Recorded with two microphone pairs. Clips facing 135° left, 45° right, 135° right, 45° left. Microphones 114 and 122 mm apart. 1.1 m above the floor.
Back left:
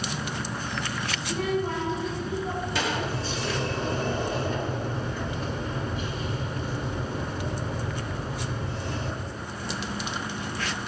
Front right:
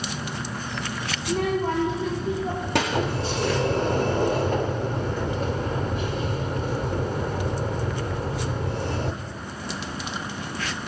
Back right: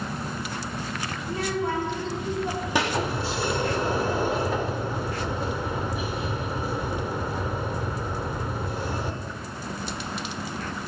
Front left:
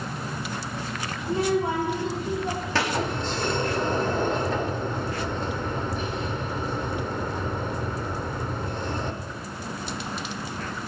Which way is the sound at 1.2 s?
20° right.